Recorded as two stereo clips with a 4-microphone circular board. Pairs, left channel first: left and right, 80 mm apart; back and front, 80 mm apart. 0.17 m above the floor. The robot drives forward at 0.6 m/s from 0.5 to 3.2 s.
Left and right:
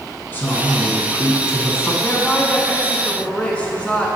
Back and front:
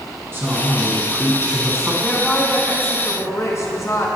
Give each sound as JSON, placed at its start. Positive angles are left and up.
{"t": 0.3, "sound": "a man speaking", "azimuth_deg": 40, "distance_m": 2.0}
{"t": 2.0, "sound": "a woman speaking", "azimuth_deg": 110, "distance_m": 1.0}